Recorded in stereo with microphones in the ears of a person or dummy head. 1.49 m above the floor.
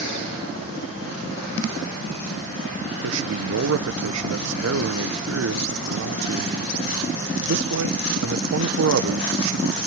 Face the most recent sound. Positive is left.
turn(degrees=-75)  # may be behind; listen again after turning